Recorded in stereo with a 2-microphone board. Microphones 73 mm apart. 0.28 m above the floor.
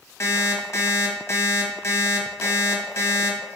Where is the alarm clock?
45° left (ahead or behind), 0.9 m.